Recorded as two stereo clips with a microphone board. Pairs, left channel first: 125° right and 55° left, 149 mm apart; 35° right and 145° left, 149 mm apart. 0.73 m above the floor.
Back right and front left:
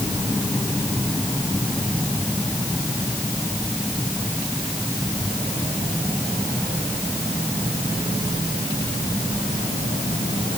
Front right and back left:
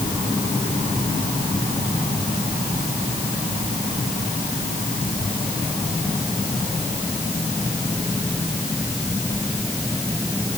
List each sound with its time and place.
Only background noise.